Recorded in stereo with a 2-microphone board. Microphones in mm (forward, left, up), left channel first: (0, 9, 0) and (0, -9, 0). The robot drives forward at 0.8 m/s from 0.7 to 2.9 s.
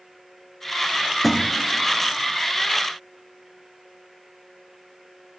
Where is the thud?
10° right (ahead or behind), 1.3 m.